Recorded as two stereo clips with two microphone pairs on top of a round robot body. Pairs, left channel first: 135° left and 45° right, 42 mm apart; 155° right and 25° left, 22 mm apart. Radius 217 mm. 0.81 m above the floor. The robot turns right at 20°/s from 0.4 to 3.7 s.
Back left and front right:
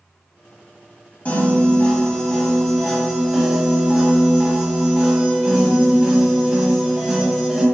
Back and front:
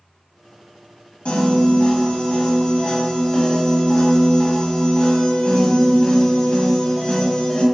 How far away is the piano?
About 1.4 m.